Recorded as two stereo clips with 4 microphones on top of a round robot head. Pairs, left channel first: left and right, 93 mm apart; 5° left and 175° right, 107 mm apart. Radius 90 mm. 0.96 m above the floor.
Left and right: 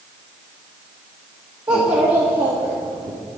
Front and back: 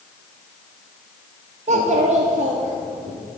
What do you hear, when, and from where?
1.7 s a child speaking: 160° right, 1.1 m; by 3.1 s 120° right, 1.8 m